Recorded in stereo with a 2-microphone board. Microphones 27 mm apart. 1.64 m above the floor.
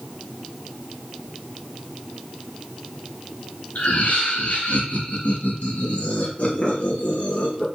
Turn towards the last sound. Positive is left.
turn(degrees=65)  # may be behind; listen again after turning